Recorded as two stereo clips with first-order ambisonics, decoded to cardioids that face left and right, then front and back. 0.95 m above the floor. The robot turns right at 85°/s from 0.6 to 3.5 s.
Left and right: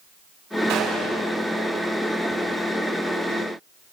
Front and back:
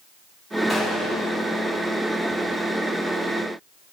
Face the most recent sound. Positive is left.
turn(degrees=160)